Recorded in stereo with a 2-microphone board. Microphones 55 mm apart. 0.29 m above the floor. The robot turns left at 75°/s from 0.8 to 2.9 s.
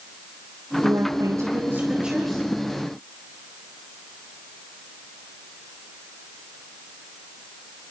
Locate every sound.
0.8 s a woman speaking: 70° right, 5 m; by 2.5 s 165° left, 5 m